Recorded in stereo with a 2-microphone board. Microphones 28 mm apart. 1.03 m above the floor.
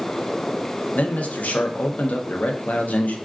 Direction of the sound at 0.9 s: 65° left (ahead or behind).